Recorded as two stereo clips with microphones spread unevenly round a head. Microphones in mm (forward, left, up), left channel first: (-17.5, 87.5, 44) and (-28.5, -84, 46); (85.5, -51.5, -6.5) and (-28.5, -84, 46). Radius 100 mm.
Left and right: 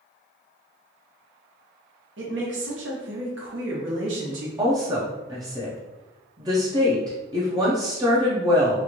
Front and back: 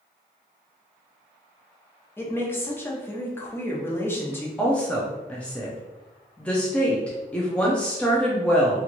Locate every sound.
2.2 s a woman speaking: 65° right, 1.0 m
4.6 s a woman speaking: 125° right, 0.6 m